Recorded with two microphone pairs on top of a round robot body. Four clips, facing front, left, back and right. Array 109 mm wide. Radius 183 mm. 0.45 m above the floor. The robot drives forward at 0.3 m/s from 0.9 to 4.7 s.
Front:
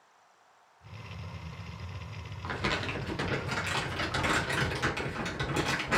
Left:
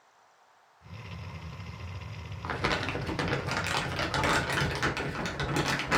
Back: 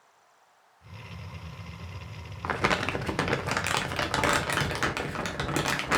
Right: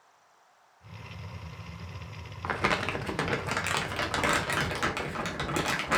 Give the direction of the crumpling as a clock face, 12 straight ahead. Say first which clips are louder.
Right 2 dB, back 6 dB; 5 o'clock.